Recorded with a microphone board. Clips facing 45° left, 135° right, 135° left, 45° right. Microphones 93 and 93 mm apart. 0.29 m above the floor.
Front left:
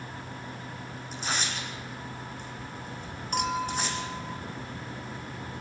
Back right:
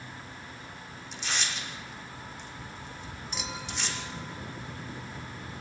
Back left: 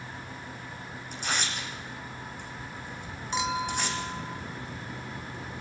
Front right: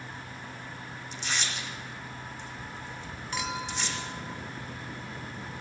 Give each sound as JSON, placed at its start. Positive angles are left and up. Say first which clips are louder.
{"t": 1.1, "sound": "tearing paper", "louder": "front left 2 dB, back left 2 dB", "azimuth_deg": 95, "distance_m": 5.0}
{"t": 3.3, "sound": "a clink", "louder": "front left 11 dB, back left 5 dB", "azimuth_deg": 70, "distance_m": 1.7}